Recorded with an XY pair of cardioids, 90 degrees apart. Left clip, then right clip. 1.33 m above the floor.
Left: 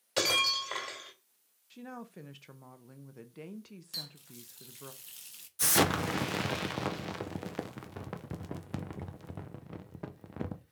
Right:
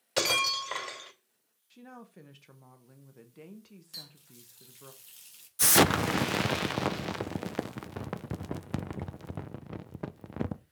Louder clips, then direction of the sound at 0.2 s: Right 1 dB; 25° right.